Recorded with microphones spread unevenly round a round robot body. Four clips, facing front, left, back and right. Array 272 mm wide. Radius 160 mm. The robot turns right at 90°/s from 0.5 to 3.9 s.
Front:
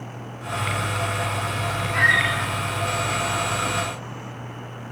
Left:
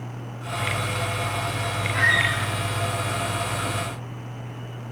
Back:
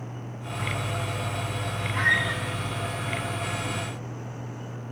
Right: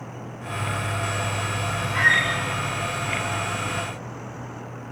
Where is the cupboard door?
No cupboard door in this recording.